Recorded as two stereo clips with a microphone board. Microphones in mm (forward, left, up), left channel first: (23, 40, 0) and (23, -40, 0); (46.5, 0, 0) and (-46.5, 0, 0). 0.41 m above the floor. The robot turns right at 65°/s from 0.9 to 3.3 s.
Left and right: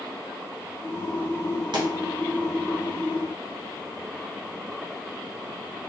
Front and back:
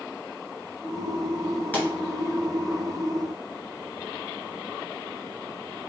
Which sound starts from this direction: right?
A pop, at 1.7 s.